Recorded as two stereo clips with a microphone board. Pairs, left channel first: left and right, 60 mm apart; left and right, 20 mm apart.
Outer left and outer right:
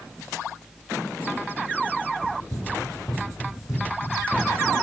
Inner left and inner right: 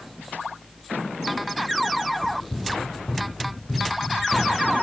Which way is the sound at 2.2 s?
65° left (ahead or behind).